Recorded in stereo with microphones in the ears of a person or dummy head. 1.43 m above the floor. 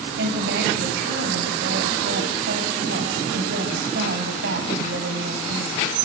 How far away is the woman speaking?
About 8 m.